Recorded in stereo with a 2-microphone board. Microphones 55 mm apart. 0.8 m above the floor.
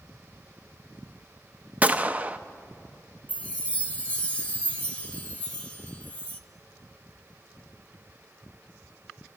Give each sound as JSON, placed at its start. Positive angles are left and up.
{"t": 1.8, "sound": "a gunshot", "side_deg": -30, "distance_m": 0.5}
{"t": 3.3, "sound": "a chime", "side_deg": 25, "distance_m": 0.9}